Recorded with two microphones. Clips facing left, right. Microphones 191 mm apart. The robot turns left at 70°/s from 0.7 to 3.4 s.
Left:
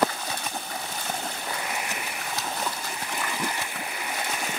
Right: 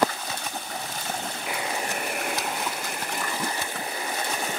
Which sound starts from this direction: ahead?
A buzzer, at 1.5 s.